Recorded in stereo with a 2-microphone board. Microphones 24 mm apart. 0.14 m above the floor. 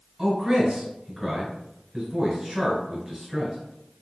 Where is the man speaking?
15° right (ahead or behind), 1.6 m.